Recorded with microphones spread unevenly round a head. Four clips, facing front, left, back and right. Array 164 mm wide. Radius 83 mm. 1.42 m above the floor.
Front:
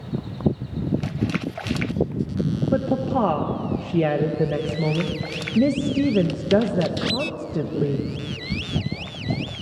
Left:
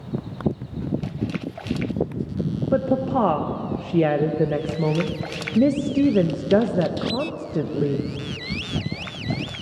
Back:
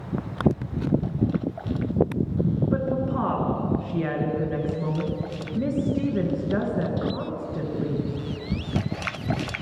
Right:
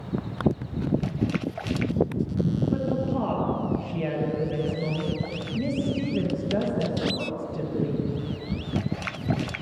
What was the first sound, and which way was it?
A woman speaking, 70° left.